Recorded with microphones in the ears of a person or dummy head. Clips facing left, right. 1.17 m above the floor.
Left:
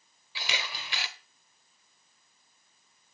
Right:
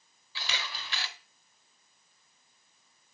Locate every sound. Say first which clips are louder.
0.3 s a camera shutter: left 2 dB; 20° left (ahead or behind), 1.0 m